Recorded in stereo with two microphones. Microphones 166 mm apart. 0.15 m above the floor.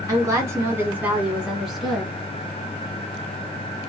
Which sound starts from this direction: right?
A woman speaking, at 0.1 s.